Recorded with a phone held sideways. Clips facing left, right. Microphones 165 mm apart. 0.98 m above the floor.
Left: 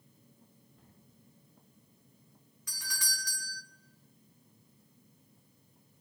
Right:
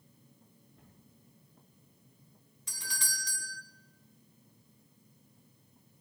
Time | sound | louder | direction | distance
0.8 | a cupboard door | right 2 dB | centre (ahead or behind) | 9 m
2.7 | a doorbell | even | 25° right (ahead or behind) | 2 m